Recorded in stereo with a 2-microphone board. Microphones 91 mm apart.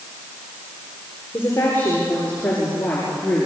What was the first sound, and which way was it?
A woman speaking, 25° left (ahead or behind).